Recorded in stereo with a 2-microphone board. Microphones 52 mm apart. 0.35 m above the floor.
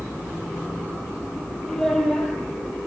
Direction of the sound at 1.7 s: 5° left (ahead or behind).